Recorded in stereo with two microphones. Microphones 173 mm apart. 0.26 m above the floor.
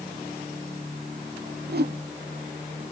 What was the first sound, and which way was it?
A whoosh, 65° right (ahead or behind).